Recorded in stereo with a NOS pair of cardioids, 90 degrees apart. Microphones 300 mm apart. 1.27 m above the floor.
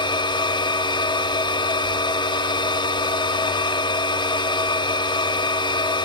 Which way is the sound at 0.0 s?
15° left.